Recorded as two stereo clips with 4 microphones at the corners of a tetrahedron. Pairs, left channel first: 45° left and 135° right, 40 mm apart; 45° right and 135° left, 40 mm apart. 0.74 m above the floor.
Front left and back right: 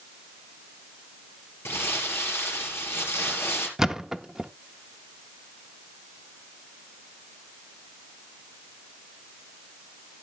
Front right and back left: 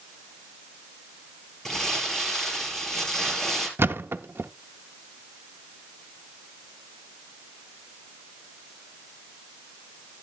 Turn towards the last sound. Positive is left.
turn(degrees=145)